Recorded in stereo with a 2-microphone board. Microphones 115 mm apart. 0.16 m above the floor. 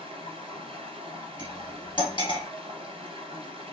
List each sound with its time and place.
0.0 s running water: 55° right (ahead or behind), 0.9 m
1.4 s cutlery clinking: 45° left (ahead or behind), 1.6 m